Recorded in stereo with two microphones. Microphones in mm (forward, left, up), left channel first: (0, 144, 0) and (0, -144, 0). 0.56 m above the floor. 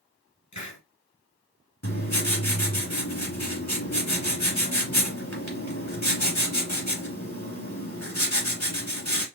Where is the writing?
65° left (ahead or behind), 4 m.